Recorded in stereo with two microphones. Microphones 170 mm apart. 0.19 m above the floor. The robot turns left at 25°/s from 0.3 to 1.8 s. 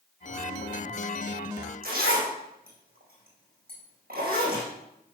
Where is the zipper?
60° right (ahead or behind), 4.5 m.